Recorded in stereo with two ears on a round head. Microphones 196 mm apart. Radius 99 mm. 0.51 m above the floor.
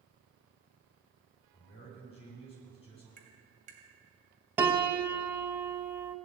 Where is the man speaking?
30° left (ahead or behind), 5 m.